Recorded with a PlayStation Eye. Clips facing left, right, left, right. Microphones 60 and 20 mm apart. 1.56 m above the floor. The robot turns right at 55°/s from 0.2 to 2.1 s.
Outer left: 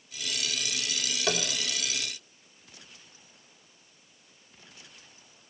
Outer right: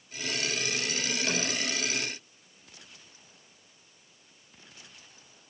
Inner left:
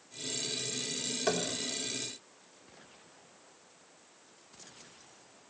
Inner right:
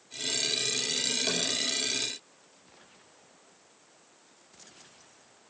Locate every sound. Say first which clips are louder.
1.3 s tapping: outer left 4 dB, inner right 2 dB; 60° left (ahead or behind), 3.5 m; by 1.4 s 70° left (ahead or behind), 3.5 m